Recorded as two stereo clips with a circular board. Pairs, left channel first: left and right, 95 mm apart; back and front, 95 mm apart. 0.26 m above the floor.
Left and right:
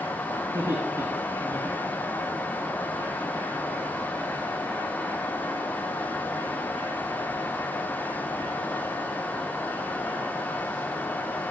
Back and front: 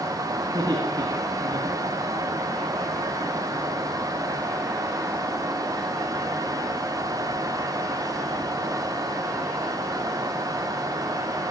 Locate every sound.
0.4 s laughter: 35° right, 3 m; by 2.3 s 55° right, 4 m